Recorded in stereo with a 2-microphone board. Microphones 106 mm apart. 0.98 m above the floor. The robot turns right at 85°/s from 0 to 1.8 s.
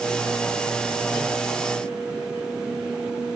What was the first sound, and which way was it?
Only background noise.